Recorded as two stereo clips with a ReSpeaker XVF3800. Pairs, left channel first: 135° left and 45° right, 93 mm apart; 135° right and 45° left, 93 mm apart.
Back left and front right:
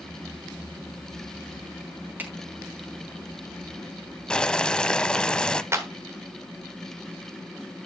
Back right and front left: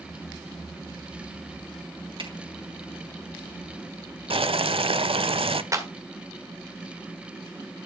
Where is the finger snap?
25° left, 4.5 m.